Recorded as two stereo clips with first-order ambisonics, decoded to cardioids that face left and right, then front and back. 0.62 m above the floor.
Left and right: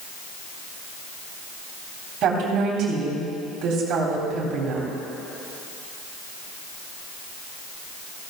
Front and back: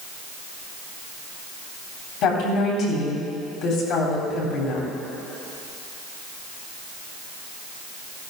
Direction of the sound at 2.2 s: 40° right.